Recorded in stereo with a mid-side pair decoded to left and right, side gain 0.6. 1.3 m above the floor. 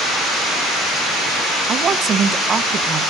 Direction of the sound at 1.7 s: 35° right.